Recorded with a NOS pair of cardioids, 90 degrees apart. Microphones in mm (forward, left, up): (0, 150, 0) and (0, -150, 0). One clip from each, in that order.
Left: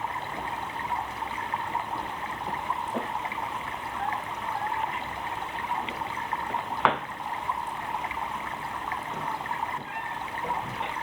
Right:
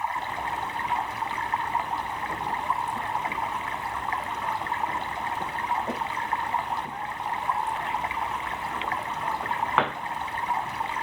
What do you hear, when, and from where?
0.0 s running water: 25° right